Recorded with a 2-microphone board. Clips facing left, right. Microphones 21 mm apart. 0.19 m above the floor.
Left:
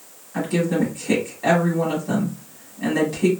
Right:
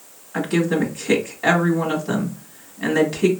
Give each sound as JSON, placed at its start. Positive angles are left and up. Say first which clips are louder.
{"t": 0.3, "sound": "a woman speaking", "louder": "right 1 dB", "side_deg": -25, "distance_m": 1.3}